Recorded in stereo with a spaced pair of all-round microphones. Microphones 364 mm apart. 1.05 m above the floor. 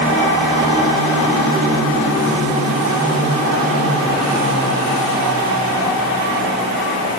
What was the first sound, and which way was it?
Only background noise.